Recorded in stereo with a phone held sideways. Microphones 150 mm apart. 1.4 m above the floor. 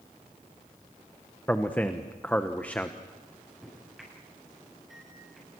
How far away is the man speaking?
About 1.0 m.